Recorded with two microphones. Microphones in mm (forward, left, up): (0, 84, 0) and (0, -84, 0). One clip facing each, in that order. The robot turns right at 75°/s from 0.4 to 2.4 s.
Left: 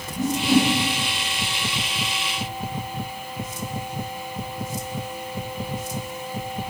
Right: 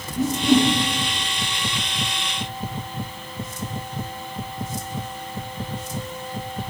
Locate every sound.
0.2 s a whoosh: 15° right (ahead or behind), 4.5 m; by 0.7 s 10° left (ahead or behind), 4.5 m